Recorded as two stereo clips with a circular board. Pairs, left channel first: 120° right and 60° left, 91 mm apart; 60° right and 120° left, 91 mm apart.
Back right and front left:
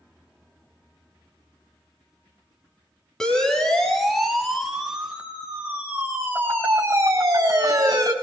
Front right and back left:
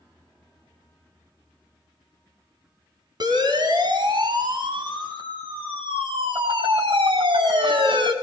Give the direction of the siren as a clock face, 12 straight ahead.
7 o'clock.